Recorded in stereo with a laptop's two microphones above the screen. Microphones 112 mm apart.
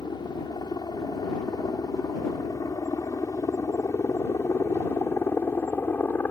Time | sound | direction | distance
0.0 | a helicopter | 40° left (ahead or behind) | ?